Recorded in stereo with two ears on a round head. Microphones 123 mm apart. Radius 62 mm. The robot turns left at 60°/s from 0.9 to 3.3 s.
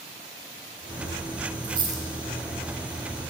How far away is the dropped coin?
About 2 m.